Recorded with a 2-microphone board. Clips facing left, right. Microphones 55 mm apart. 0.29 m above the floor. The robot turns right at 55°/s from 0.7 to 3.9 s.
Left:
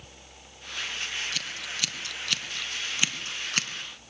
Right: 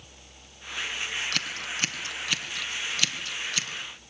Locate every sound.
1.3 s scissors: 60° right (ahead or behind), 2.5 m; by 3.7 s 55° left (ahead or behind), 2.5 m